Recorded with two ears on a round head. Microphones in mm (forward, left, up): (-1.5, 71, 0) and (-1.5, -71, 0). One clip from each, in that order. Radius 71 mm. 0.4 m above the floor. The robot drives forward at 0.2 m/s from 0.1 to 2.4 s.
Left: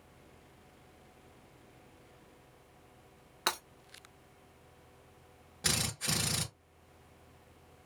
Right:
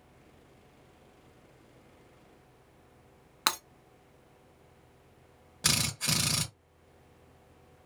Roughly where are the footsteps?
I don't hear footsteps.